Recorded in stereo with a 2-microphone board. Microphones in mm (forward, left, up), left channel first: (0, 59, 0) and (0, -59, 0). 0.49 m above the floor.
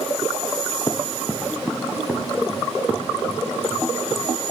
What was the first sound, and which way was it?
Running footsteps, 30° left (ahead or behind).